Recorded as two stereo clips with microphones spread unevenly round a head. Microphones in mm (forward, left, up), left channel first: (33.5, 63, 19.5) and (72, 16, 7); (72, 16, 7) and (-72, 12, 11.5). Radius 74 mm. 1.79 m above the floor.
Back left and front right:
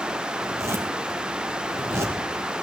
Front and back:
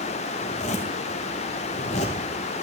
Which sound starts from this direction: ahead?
A zipper, at 0.4 s.